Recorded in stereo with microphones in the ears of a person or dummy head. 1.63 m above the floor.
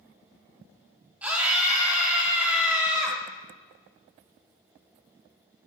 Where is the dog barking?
No dog barking in this recording.